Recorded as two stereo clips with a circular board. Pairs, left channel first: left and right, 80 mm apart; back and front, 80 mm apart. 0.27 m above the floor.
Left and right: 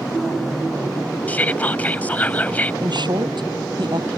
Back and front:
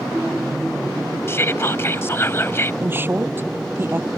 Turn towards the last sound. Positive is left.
turn(degrees=-60)